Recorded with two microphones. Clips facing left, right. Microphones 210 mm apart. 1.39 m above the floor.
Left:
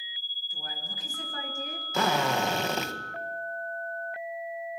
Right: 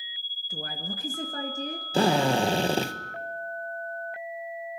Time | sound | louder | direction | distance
0.5 | a woman speaking | right 8 dB | 80° right | 1.7 m
1.9 | a drill | right 5 dB | 30° right (ahead or behind) | 1.7 m